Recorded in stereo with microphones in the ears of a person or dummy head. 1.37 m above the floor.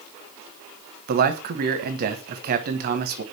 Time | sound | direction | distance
1.1 | a man speaking | 55° right (ahead or behind) | 0.9 m